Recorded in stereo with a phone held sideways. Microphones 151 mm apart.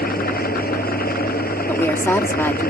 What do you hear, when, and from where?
0.0 s an engine running: 80° left
1.7 s a woman speaking: 15° left (ahead or behind)